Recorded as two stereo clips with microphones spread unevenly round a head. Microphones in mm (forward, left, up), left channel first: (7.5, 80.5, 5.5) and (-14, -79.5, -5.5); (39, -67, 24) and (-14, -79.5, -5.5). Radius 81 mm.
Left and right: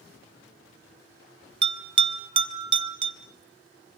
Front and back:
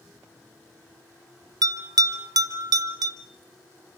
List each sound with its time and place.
1.6 s a bell: 150° right, 1.5 m